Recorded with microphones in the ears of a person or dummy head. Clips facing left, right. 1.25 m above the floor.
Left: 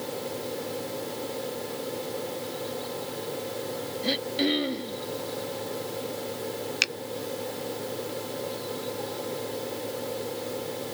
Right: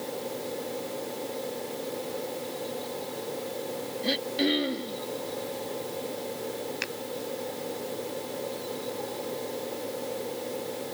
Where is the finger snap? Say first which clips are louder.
Even; 45° left (ahead or behind).